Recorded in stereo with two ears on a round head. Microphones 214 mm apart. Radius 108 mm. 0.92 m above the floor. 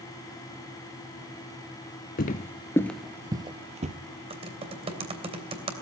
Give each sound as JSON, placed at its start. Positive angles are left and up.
{"t": 2.2, "sound": "footsteps", "side_deg": 40, "distance_m": 1.1}
{"t": 4.3, "sound": "typing on a keyboard", "side_deg": -25, "distance_m": 2.5}